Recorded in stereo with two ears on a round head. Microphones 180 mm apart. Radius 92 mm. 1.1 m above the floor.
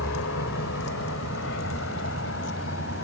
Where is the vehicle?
75° left (ahead or behind); by 3.0 s 60° left (ahead or behind).